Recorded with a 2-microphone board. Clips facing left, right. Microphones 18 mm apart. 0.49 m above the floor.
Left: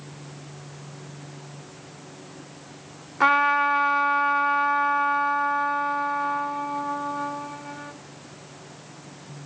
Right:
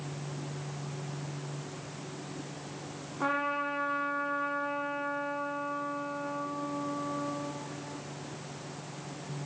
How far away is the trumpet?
About 0.8 m.